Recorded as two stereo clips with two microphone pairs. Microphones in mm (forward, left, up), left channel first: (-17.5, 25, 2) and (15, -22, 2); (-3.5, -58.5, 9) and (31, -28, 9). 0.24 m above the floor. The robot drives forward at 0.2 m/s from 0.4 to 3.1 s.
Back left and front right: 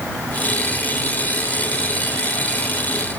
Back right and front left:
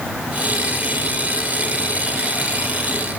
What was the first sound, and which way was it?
Only background noise.